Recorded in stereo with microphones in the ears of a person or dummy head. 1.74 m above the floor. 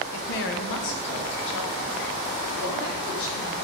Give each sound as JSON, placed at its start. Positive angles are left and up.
{"t": 0.1, "sound": "a woman speaking", "side_deg": 55, "distance_m": 1.0}